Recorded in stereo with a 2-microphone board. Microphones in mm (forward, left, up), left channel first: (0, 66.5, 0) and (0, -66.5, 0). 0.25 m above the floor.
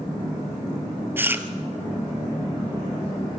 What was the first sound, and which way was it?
Chewing, 15° right (ahead or behind).